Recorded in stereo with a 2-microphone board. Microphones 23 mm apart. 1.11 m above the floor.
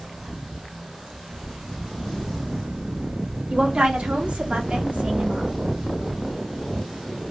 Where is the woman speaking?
50° right (ahead or behind), 1.0 m; by 5.5 s 60° right (ahead or behind), 1.1 m.